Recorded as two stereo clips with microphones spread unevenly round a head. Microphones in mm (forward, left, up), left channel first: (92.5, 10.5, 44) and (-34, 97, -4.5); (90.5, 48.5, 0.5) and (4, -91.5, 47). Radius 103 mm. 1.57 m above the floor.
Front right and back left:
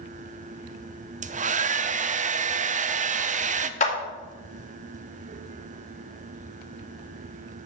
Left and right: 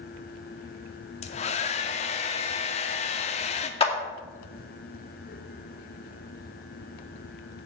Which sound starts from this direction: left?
A hair dryer, at 1.2 s.